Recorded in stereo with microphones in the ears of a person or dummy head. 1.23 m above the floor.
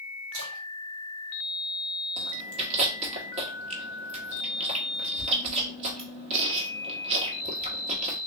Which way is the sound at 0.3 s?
80° right.